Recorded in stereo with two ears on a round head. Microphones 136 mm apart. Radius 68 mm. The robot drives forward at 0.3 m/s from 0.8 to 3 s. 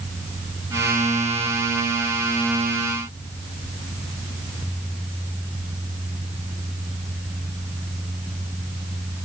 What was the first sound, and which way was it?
Only background noise.